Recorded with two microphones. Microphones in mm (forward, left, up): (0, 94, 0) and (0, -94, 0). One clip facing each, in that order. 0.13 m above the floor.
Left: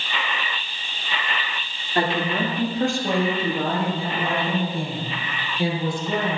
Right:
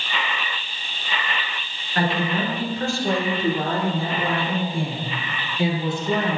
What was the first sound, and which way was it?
A woman speaking, 25° left (ahead or behind).